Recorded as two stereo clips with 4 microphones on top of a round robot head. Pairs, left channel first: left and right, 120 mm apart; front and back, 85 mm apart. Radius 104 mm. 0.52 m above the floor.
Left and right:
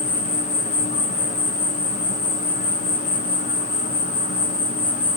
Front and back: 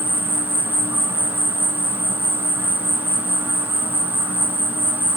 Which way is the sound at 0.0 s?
110° left.